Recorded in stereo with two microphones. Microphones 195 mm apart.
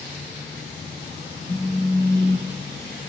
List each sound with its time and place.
1.5 s a phone buzzing: 40° left (ahead or behind), 1.6 m